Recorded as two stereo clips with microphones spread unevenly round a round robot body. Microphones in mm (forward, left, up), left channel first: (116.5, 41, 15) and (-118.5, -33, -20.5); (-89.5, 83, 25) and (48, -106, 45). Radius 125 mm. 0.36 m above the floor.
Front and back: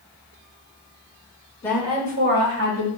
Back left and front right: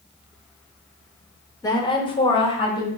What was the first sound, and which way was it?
A woman speaking, 100° left.